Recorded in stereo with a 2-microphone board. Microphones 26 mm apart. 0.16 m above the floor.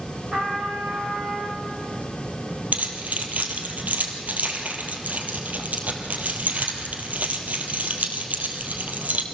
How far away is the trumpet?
About 5.5 m.